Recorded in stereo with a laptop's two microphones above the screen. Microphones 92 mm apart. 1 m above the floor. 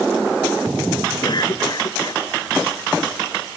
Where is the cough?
55° left (ahead or behind).